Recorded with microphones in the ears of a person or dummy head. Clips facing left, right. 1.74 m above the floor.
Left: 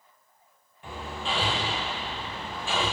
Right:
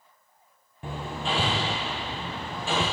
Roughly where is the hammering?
Right.